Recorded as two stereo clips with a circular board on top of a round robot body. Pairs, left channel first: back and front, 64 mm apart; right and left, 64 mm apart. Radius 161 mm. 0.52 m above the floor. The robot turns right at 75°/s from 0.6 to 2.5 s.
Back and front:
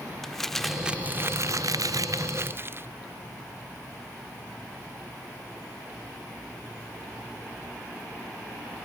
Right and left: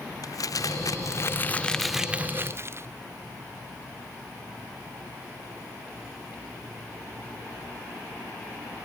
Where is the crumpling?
95° right; by 2.9 s 50° left.